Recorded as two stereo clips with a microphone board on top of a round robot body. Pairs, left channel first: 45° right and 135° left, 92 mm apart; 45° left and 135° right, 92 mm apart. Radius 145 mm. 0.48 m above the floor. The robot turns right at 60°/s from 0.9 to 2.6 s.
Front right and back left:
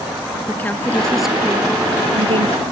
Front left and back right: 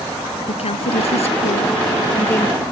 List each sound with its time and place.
0.5 s a woman speaking: 30° left; by 2.6 s 130° left